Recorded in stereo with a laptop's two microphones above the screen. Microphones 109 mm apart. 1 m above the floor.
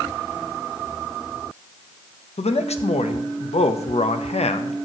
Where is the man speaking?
75° left (ahead or behind), 0.5 m.